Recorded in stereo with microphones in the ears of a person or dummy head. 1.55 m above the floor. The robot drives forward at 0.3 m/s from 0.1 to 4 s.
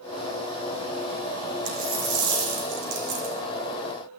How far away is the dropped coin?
About 3.5 m.